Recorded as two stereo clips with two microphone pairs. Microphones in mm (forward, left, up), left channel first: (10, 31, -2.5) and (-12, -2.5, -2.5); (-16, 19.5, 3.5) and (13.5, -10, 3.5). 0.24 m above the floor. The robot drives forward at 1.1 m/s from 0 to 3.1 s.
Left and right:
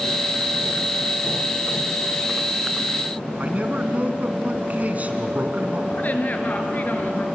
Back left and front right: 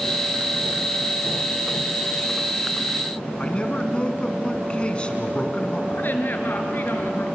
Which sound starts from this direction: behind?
A man speaking, at 3.4 s.